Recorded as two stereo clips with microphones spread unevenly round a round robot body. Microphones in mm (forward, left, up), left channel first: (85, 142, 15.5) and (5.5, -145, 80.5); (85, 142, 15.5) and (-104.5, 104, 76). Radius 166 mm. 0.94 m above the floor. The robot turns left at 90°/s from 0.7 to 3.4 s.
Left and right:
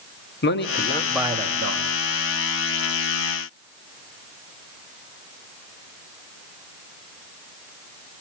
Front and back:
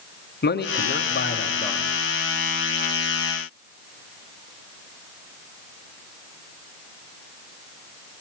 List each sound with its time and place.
0.4 s a man speaking: 25° left, 2 m; by 1.9 s 85° right, 2 m